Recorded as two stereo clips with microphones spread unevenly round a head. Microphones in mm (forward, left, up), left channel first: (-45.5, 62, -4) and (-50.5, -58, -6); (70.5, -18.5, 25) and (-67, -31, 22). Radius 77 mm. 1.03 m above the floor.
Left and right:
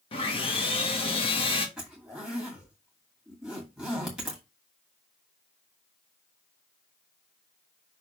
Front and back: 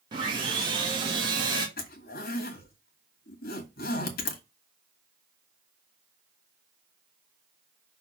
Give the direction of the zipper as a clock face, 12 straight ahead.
12 o'clock.